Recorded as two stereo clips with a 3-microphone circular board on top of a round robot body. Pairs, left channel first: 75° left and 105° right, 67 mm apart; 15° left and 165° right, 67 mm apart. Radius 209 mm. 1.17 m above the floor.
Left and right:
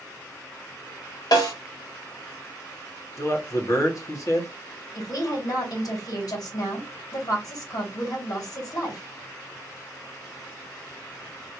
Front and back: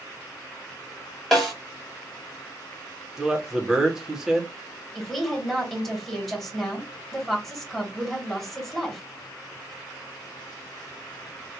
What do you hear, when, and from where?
1.3 s a snare drum: 105° left, 2 m
3.2 s a man speaking: 115° left, 1.4 m
5.0 s a woman speaking: 105° left, 2 m